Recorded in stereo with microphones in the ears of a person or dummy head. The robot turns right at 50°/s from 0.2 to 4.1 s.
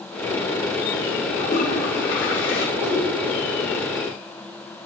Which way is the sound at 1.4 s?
30° left.